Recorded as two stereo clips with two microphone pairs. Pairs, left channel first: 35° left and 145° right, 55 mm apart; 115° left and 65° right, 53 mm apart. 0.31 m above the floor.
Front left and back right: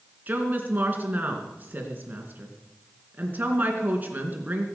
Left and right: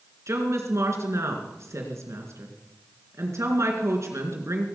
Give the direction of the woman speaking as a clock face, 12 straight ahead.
3 o'clock.